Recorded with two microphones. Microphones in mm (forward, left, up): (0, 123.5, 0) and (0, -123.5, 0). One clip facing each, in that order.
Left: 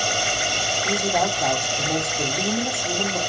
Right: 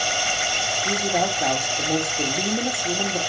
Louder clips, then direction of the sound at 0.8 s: Even; 5° right (ahead or behind).